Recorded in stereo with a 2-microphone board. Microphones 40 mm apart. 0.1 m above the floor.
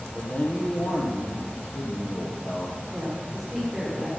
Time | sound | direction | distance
0.1 | a man speaking | 45° left (ahead or behind) | 3.5 m
2.9 | a woman speaking | 5° left (ahead or behind) | 7 m